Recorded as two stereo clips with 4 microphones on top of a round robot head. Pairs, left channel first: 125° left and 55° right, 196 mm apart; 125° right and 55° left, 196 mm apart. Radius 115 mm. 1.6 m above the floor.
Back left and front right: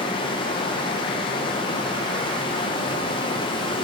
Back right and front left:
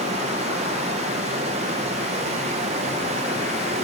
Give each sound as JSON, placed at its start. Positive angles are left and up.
{"t": 0.0, "sound": "running water", "azimuth_deg": 80, "distance_m": 0.7}